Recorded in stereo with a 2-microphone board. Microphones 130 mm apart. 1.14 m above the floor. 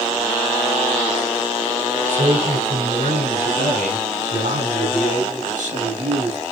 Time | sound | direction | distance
2.1 | a man speaking | 80° right | 6.5 m